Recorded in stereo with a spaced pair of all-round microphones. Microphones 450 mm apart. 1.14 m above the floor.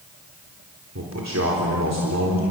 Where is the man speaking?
35° right (ahead or behind), 4 m.